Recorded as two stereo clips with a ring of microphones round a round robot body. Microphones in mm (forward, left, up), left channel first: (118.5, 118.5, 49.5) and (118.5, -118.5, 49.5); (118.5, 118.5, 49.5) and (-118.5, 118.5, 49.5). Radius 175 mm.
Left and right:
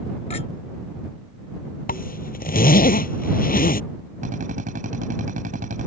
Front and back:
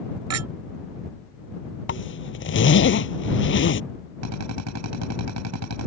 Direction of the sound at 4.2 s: 160° right.